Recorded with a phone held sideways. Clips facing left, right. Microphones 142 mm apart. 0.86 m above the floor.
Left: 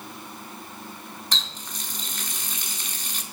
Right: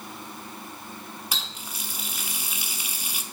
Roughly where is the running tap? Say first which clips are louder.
Even; centre.